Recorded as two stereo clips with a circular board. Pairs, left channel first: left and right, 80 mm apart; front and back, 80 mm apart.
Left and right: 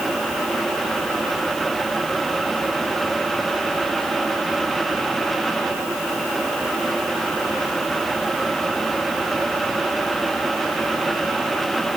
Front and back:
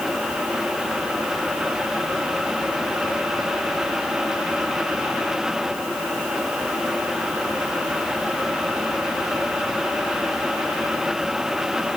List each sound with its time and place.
Only background noise.